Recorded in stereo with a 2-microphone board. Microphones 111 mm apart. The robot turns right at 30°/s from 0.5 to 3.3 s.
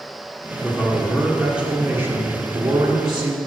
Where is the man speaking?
165° left, 1.8 m; by 3.4 s 115° right, 1.8 m.